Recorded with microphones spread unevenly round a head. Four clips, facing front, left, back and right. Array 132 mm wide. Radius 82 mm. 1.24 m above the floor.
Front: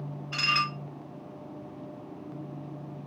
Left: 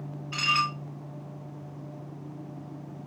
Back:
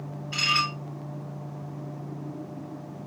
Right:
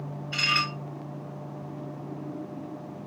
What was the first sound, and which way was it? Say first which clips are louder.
Dishes clattering: left 2 dB, back 2 dB; 70° left.